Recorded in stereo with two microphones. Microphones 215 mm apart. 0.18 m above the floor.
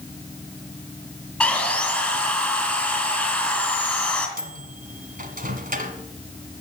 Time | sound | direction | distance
1.4 | sawing | 5° left (ahead or behind) | 2.5 m
4.4 | a microwave | 40° right (ahead or behind) | 1.5 m